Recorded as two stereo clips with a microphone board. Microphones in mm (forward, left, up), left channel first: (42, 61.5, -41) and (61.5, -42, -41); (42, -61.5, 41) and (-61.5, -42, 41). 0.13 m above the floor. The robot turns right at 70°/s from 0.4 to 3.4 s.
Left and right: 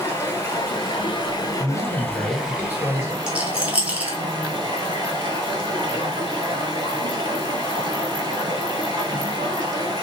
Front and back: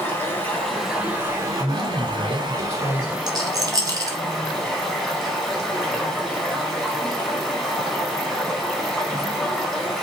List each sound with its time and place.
0.0 s running water: 50° left, 0.9 m; by 10.0 s 100° right, 0.9 m
1.6 s a man speaking: 25° right, 1.7 m; by 3.2 s 85° left, 1.7 m
3.3 s a rattle: 160° right, 0.7 m; by 4.2 s 150° right, 0.7 m